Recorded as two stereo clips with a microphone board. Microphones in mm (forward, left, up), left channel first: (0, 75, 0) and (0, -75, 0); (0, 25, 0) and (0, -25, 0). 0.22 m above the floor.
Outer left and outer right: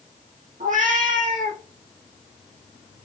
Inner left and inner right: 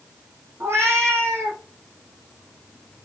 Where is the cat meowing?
60° right (ahead or behind), 3.5 m.